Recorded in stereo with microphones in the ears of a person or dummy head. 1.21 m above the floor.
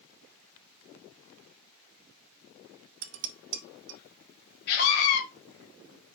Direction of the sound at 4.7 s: 50° left (ahead or behind).